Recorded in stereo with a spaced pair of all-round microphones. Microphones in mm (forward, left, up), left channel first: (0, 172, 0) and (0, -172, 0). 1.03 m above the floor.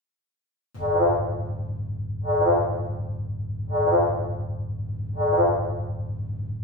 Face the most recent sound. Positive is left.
turn(degrees=45)  # may be behind; listen again after turning